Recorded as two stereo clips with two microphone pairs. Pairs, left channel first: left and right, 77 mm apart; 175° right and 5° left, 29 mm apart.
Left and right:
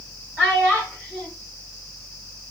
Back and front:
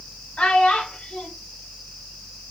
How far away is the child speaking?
About 0.9 m.